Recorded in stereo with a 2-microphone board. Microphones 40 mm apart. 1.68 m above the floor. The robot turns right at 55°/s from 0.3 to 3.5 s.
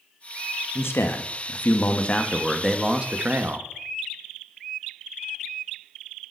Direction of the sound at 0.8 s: 80° left.